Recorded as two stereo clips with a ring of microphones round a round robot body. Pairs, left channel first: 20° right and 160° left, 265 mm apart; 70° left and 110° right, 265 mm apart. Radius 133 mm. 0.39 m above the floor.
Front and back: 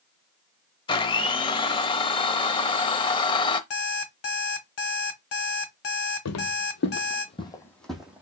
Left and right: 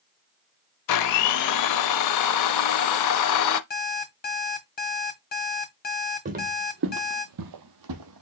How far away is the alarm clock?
About 1.2 m.